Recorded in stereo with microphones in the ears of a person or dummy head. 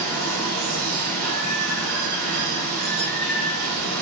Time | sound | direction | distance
0.0 | running water | 80° right | 1.6 m